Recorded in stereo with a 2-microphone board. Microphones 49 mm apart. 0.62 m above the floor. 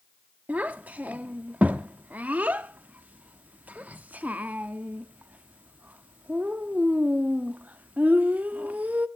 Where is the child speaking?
35° right (ahead or behind), 0.5 m.